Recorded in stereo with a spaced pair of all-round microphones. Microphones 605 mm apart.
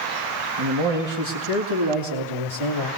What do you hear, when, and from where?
0.6 s a man speaking: 45° right (ahead or behind), 2 m; by 2.9 s 55° right (ahead or behind), 3.5 m